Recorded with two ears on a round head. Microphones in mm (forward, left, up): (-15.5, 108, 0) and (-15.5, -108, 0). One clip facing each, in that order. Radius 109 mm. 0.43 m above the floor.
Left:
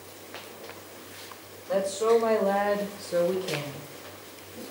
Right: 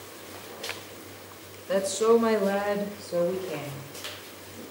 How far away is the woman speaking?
About 1.6 m.